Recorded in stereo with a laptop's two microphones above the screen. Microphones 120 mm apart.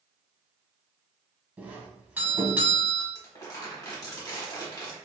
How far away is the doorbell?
About 1.3 m.